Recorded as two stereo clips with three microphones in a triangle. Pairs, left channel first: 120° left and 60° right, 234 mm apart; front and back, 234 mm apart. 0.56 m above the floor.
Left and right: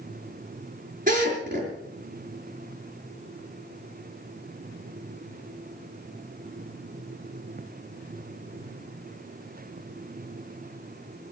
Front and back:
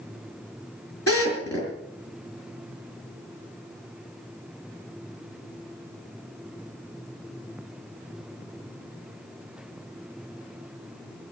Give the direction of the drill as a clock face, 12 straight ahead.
12 o'clock.